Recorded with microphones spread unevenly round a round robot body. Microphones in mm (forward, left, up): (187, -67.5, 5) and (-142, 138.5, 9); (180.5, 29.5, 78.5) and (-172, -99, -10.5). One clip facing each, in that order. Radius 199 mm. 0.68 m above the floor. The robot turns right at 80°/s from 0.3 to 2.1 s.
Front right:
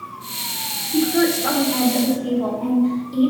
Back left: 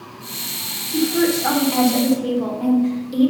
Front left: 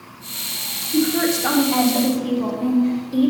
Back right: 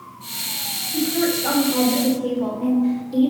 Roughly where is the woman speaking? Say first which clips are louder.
Even, front left 2 dB; ahead left.